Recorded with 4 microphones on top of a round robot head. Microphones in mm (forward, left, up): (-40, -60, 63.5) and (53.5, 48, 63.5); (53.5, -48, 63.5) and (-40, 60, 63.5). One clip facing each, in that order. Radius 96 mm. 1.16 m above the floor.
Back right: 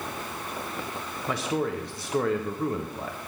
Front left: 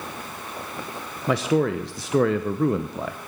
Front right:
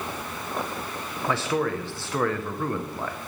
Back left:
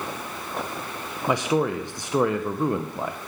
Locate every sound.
1.3 s a man speaking: 55° left, 0.7 m